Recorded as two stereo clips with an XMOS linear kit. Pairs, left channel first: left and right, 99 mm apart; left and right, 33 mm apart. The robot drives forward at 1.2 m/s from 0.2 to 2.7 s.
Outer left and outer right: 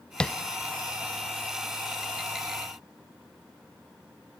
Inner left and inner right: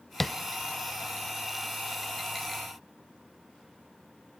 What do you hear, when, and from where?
0.2 s tapping: 10° left (ahead or behind), 0.5 m